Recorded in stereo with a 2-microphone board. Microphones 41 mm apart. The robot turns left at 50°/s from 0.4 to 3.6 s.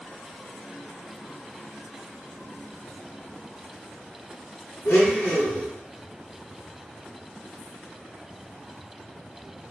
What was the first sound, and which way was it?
A blender, 75° left (ahead or behind).